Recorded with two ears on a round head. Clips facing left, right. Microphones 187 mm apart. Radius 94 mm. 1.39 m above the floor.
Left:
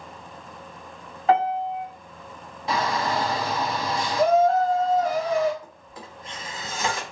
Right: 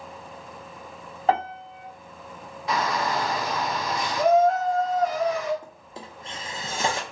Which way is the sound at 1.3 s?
30° right (ahead or behind).